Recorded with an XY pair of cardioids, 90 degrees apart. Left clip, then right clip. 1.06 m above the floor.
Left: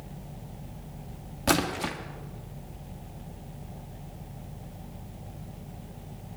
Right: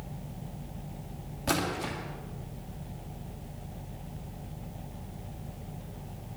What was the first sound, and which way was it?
A splash, 50° left.